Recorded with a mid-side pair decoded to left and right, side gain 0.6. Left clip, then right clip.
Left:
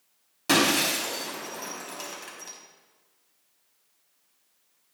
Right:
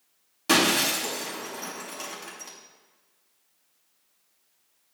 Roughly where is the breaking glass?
Ahead.